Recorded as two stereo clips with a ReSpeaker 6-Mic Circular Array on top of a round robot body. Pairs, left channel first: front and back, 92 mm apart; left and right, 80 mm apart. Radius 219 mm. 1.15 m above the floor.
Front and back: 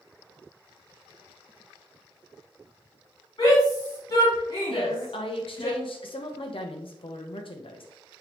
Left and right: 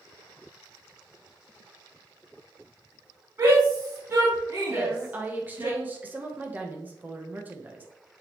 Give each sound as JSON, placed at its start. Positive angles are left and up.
{"t": 3.4, "sound": "a shout", "azimuth_deg": -40, "distance_m": 3.0}
{"t": 4.7, "sound": "a woman speaking", "azimuth_deg": -20, "distance_m": 1.2}